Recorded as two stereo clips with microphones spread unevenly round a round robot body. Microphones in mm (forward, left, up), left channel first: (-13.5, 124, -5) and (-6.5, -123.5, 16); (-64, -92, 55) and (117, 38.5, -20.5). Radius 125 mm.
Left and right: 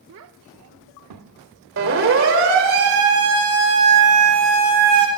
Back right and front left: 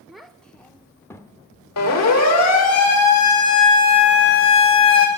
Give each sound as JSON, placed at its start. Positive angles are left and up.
{"t": 0.1, "sound": "a child speaking", "azimuth_deg": -50, "distance_m": 1.2}
{"t": 1.8, "sound": "a siren", "azimuth_deg": -130, "distance_m": 4.5}